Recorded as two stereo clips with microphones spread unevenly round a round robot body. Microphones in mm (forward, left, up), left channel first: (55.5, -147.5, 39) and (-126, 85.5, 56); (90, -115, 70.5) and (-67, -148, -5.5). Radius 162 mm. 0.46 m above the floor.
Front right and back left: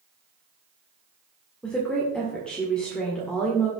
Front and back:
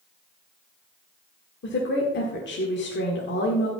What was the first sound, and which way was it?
A woman speaking, 30° left.